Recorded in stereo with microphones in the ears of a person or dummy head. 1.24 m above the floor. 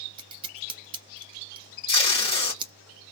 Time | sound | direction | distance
0.2 | scissors | 30° right (ahead or behind) | 0.6 m
1.9 | tape being pulled | 25° left (ahead or behind) | 1.6 m